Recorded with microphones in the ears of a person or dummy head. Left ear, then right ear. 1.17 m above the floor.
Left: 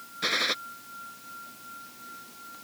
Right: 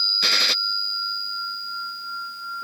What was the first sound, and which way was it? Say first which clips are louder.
A gunshot: right 4 dB; 20° right (ahead or behind).